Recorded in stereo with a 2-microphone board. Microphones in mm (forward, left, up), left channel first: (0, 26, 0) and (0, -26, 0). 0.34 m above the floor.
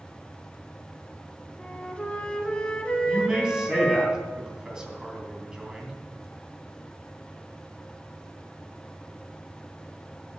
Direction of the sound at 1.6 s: 20° left (ahead or behind).